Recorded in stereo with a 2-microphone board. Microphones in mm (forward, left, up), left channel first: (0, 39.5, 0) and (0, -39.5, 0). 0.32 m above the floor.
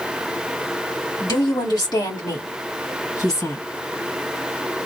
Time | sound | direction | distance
1.2 | a woman speaking | 55° left (ahead or behind) | 2.5 m